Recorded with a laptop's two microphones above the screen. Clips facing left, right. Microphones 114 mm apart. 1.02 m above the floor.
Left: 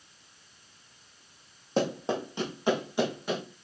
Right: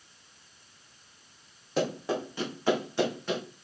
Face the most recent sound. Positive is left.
turn(degrees=10)  # may be behind; listen again after turning